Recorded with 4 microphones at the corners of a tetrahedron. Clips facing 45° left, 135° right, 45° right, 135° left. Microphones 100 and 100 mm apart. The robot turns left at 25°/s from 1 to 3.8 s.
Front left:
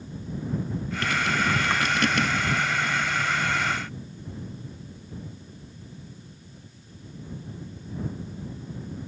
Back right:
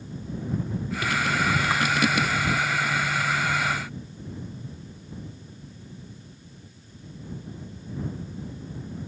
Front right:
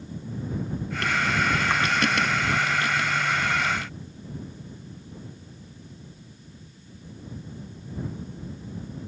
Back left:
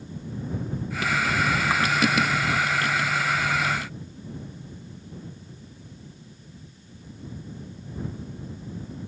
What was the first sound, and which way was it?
Only background noise.